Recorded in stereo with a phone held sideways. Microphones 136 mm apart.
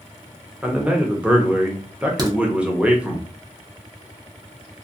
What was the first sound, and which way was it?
A man speaking, 10° right (ahead or behind).